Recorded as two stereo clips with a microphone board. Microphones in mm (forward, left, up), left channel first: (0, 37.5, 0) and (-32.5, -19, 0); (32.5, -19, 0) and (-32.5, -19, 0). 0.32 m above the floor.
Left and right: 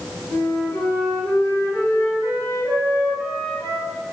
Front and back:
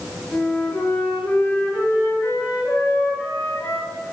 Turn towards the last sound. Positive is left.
turn(degrees=35)